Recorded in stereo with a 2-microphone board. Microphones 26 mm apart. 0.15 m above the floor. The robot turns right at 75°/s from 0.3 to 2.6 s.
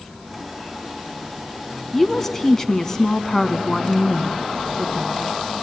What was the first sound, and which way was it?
A woman speaking, 10° left (ahead or behind).